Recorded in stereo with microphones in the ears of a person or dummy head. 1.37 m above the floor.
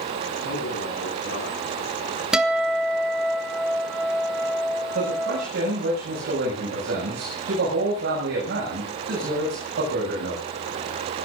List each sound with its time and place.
0.4 s a man speaking: 65° left (ahead or behind), 9.5 m
2.3 s a guitar: 10° right (ahead or behind), 1.6 m
5.0 s a man speaking: 65° right (ahead or behind), 7.5 m